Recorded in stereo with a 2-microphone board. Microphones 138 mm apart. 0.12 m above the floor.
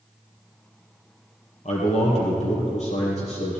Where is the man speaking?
60° left (ahead or behind), 3 m.